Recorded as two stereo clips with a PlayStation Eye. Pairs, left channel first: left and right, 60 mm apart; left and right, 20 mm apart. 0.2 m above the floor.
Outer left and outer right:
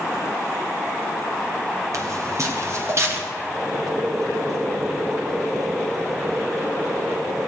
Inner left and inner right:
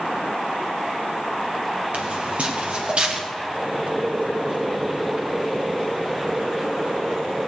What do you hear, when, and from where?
1.9 s footsteps: 70° right (ahead or behind), 3 m; by 3.2 s 50° right (ahead or behind), 3.5 m
3.5 s boiling: 85° right, 4.5 m